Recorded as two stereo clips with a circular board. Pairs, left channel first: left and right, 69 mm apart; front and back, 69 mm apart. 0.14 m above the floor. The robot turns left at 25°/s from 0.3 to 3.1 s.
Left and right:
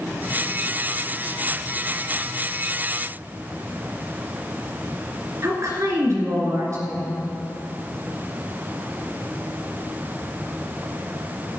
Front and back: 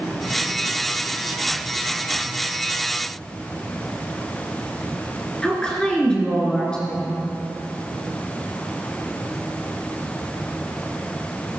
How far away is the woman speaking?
About 1.9 m.